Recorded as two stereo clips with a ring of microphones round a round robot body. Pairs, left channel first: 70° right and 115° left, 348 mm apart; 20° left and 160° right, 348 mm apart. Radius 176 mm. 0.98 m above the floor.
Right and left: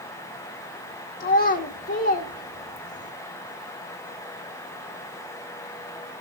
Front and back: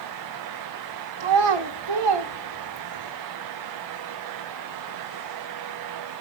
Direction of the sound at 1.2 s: 135° right.